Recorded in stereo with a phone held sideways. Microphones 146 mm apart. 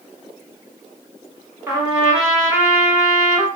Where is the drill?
I don't hear a drill.